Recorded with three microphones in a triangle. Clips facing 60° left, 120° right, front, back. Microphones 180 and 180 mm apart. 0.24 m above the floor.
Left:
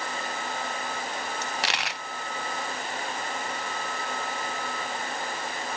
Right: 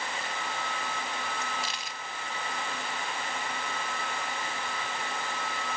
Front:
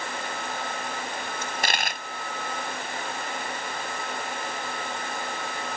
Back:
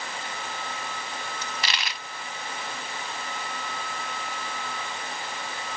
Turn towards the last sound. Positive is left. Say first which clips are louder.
# left 5 dB, front 7 dB
turn(degrees=40)